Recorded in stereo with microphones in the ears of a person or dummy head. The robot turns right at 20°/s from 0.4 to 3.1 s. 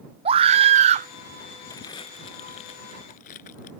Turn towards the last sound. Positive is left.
turn(degrees=50)  # may be behind; listen again after turning